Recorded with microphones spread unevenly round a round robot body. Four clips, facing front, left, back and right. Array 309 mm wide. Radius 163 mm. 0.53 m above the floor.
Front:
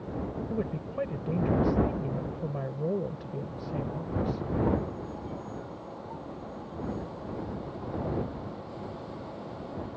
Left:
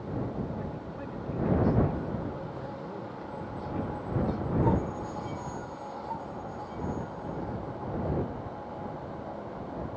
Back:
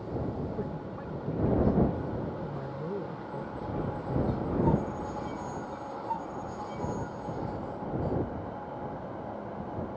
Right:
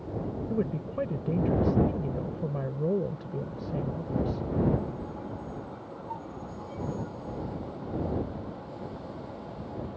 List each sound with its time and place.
0.5 s a woman speaking: 70° right